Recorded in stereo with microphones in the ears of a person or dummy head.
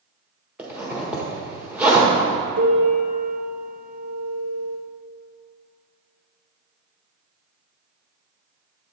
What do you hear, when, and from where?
0.6 s a zipper: 5° right (ahead or behind), 1.4 m
2.6 s a piano: 50° right (ahead or behind), 0.9 m